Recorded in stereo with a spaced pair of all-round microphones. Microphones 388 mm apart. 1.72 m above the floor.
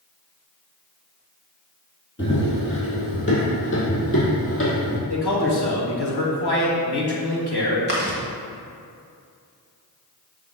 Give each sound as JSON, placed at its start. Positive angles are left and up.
{"t": 2.2, "sound": "running footsteps", "side_deg": 30, "distance_m": 2.0}
{"t": 5.1, "sound": "a man speaking", "side_deg": 70, "distance_m": 1.5}
{"t": 7.9, "sound": "chewing", "side_deg": -25, "distance_m": 1.4}